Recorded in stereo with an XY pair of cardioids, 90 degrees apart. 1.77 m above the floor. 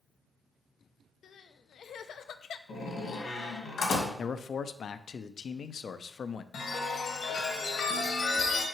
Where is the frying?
No frying in this recording.